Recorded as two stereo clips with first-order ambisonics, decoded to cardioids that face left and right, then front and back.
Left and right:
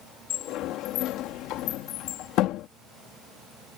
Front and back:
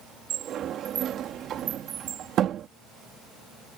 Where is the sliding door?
125° left.